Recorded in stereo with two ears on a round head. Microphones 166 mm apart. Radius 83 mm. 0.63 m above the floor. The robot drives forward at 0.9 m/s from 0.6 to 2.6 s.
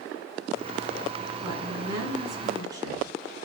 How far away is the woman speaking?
About 6.5 m.